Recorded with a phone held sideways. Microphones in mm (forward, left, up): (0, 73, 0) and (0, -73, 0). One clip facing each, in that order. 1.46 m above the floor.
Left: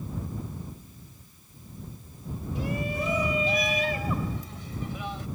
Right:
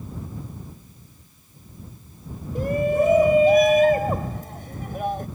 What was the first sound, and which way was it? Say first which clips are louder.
A shout: right 11 dB; 50° right (ahead or behind).